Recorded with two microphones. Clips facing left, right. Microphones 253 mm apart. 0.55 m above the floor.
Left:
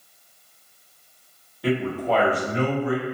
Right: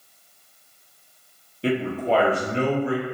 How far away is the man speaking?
About 0.8 m.